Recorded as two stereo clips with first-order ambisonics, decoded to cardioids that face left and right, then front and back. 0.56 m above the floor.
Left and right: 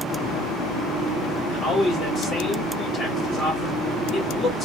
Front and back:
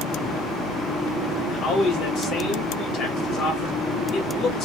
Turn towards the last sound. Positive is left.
turn(degrees=30)